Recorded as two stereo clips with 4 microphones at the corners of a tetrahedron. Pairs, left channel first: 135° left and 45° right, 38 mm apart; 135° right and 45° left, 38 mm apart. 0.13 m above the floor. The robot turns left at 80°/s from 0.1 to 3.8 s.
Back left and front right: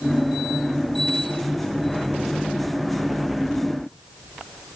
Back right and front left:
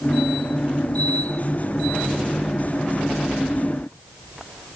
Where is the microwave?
No microwave in this recording.